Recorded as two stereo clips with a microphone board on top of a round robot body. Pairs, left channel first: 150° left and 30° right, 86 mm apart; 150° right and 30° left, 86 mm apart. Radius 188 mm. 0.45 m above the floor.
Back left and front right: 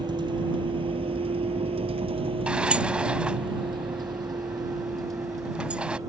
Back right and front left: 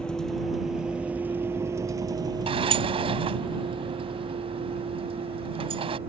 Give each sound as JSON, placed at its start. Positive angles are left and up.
{"t": 0.0, "sound": "a vehicle", "azimuth_deg": -70}
{"t": 2.5, "sound": "a sliding door", "azimuth_deg": 50}